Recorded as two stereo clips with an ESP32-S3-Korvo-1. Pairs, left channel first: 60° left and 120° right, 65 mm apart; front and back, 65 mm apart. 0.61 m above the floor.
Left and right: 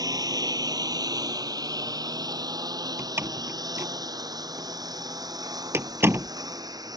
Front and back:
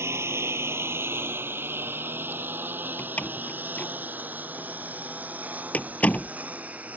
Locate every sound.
0.0 s a lawn mower: 130° right; by 7.0 s 110° right
3.0 s a door slam: 70° right